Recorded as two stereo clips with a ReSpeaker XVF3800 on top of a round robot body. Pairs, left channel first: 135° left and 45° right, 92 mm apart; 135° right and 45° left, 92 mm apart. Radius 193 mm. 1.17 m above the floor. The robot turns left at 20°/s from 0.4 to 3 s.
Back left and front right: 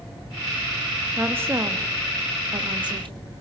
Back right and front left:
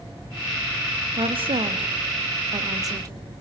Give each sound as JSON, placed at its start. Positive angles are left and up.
{"t": 1.2, "sound": "a woman speaking", "azimuth_deg": 25, "distance_m": 2.0}